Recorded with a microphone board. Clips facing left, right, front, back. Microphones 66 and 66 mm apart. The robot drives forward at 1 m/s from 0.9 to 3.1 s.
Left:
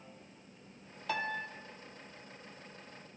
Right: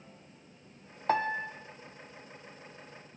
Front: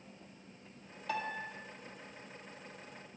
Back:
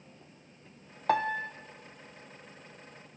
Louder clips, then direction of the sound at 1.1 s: Right 7 dB, back 10 dB; 140° right.